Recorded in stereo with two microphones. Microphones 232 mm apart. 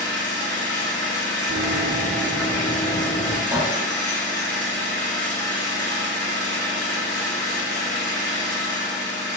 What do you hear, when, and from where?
0.0 s an engine running: 85° right, 1.2 m
1.5 s running footsteps: 60° right (ahead or behind), 1.2 m; by 3.4 s 15° left (ahead or behind), 0.7 m
3.5 s a clink: 10° right (ahead or behind), 0.6 m